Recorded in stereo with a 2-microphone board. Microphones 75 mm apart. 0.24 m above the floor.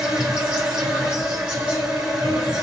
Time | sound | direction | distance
0.0 | an insect | 15° right (ahead or behind) | 2.5 m